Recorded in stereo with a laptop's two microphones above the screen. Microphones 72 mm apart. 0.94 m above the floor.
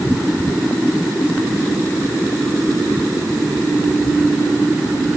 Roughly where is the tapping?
I don't hear tapping.